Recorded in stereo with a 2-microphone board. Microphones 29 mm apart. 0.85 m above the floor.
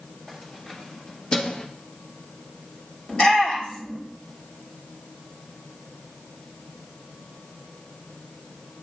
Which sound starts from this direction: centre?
Keys jangling, at 0.3 s.